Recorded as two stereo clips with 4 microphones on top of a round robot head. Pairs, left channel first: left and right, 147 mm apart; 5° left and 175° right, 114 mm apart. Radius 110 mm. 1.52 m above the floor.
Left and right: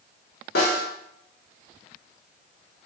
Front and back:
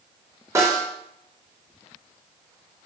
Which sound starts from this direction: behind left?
A snare drum, at 0.6 s.